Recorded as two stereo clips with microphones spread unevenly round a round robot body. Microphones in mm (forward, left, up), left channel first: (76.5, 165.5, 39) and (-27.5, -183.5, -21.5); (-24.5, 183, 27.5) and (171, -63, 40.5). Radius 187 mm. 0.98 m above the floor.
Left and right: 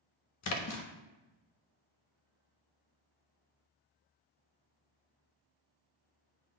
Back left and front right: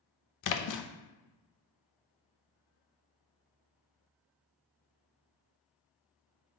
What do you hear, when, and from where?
0.4 s a splash: 125° left, 0.7 m